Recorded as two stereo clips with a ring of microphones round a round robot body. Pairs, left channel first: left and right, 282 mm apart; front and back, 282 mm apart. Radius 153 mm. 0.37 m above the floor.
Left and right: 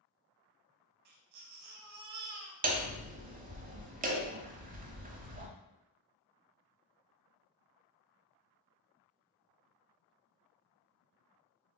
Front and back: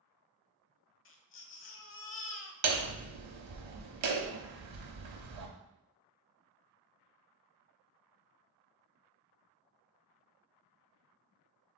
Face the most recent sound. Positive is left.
turn(degrees=-150)